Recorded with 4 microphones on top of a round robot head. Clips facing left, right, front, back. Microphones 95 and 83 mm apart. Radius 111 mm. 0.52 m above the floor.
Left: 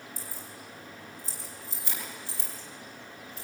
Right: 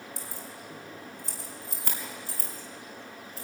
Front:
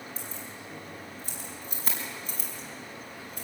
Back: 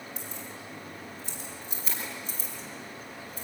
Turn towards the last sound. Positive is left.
turn(degrees=-35)